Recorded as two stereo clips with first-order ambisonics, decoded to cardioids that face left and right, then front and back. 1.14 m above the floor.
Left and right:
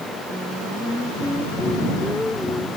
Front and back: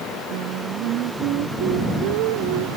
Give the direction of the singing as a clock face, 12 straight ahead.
6 o'clock.